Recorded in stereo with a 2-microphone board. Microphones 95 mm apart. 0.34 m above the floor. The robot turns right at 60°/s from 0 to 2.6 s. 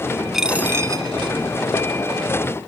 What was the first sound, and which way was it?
A dropped coin, 175° right.